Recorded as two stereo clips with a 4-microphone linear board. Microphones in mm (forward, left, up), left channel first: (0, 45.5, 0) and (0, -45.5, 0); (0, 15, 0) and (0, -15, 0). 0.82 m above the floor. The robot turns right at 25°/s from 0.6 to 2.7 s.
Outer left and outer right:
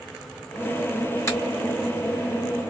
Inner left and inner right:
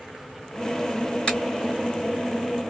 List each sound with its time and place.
1.3 s a finger snap: 30° left (ahead or behind), 1.9 m; by 1.4 s 35° left (ahead or behind), 1.9 m